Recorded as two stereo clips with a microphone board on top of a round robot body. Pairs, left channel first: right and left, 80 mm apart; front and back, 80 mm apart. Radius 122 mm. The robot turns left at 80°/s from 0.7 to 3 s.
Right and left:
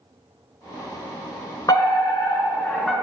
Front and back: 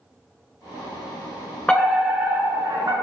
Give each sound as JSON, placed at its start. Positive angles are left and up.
{"t": 1.7, "sound": "a fire alarm", "azimuth_deg": -75, "distance_m": 4.0}